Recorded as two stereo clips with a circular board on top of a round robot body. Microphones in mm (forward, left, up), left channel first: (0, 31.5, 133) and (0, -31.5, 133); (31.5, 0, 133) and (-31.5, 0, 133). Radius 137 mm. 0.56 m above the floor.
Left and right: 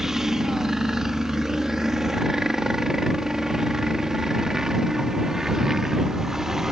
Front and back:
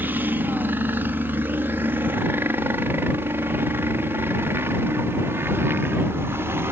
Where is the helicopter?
170° right.